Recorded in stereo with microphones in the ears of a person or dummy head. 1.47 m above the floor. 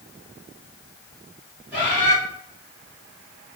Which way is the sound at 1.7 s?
15° right (ahead or behind).